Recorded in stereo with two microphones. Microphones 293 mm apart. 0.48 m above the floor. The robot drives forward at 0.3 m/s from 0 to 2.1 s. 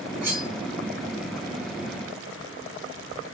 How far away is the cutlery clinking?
About 1.6 m.